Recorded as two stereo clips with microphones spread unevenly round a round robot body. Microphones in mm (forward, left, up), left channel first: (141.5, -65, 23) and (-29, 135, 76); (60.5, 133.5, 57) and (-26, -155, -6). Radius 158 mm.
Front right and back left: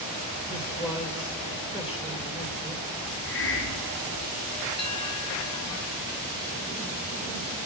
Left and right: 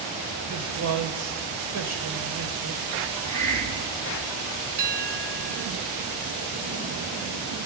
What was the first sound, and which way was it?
A man speaking, 140° right.